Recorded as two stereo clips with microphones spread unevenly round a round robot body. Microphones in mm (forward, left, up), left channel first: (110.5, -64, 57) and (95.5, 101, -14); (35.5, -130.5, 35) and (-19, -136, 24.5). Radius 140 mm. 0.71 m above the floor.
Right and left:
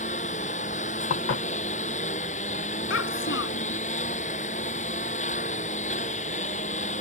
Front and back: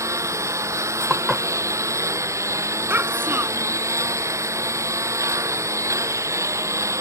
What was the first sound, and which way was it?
A lawn mower, 150° right.